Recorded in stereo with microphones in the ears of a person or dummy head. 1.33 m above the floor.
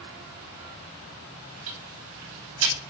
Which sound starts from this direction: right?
Ticking, at 1.7 s.